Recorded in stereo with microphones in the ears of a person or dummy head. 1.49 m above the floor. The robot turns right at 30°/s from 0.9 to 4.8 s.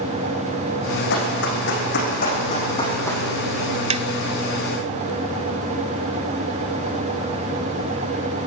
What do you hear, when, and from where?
1.1 s running footsteps: 75° left (ahead or behind), 5 m; by 3.2 s 10° left (ahead or behind), 4 m
3.9 s tapping: 30° right (ahead or behind), 0.6 m; by 4.0 s 35° right (ahead or behind), 0.6 m